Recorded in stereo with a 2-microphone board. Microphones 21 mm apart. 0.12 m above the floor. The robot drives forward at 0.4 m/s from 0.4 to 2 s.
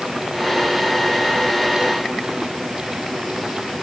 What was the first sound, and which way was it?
Only background noise.